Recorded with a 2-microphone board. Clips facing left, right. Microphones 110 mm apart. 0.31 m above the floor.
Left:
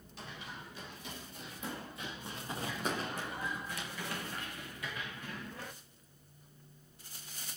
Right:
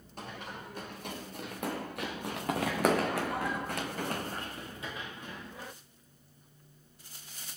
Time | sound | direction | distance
0.2 | running footsteps | 50° right (ahead or behind) | 3.5 m